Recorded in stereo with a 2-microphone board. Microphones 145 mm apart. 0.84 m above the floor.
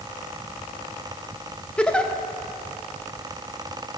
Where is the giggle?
5° left (ahead or behind), 0.9 m.